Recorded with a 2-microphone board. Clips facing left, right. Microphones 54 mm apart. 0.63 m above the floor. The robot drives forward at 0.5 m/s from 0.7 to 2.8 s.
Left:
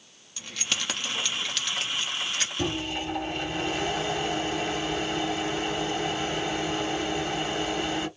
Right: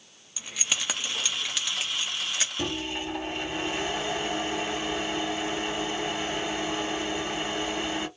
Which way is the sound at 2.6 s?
20° right (ahead or behind).